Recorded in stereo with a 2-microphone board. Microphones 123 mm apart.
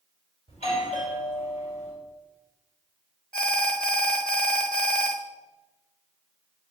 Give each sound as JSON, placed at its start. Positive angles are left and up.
{"t": 0.5, "sound": "a doorbell", "side_deg": 65, "distance_m": 5.0}
{"t": 3.3, "sound": "an alarm", "side_deg": 5, "distance_m": 1.3}